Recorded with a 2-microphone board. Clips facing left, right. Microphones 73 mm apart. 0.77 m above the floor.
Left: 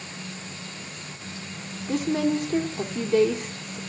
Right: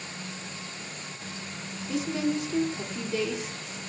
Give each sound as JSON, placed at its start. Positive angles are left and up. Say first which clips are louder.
{"t": 1.9, "sound": "a woman speaking", "louder": "left 4 dB", "side_deg": 50, "distance_m": 1.6}